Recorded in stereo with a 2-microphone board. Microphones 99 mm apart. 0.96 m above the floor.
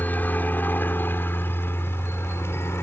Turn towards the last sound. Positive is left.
turn(degrees=25)  # may be behind; listen again after turning